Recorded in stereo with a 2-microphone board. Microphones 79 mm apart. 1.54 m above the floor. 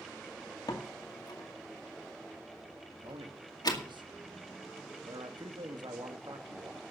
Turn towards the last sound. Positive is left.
turn(degrees=-70)  # may be behind; listen again after turning